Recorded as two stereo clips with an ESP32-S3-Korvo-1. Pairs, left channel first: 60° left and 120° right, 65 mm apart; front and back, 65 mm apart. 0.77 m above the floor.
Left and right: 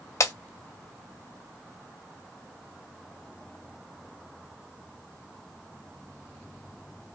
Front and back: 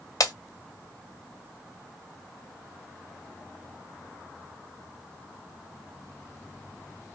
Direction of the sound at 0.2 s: 30° left.